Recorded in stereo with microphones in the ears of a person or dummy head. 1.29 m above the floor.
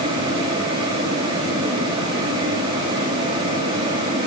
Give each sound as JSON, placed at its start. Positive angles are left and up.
{"t": 0.0, "sound": "a fan", "side_deg": -30, "distance_m": 8.5}